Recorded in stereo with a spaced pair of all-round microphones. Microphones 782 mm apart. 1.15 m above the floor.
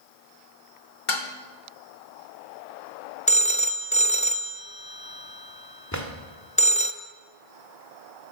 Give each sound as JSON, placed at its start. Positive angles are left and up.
{"t": 1.1, "sound": "dishes clattering", "side_deg": 75, "distance_m": 1.4}
{"t": 3.3, "sound": "a phone ringing", "side_deg": 10, "distance_m": 0.5}
{"t": 5.9, "sound": "a drawer", "side_deg": 20, "distance_m": 1.8}